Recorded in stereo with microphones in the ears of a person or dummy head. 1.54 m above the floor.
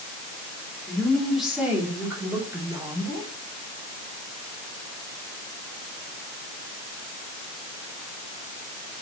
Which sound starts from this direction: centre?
A woman speaking, at 0.9 s.